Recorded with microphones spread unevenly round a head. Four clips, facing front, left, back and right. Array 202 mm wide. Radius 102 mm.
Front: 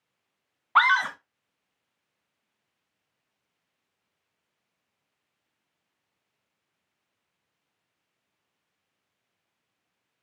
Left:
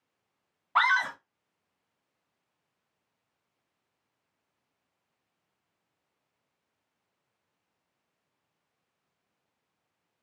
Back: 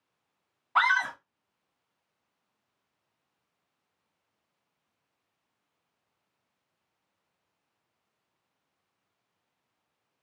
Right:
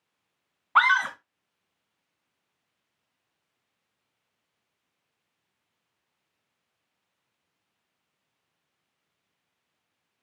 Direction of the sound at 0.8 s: 30° right.